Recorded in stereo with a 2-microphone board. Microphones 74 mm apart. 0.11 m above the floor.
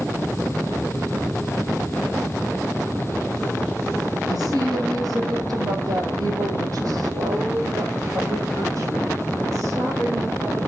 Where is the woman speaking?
65° right (ahead or behind), 3 m; by 10.7 s 50° right (ahead or behind), 6.5 m.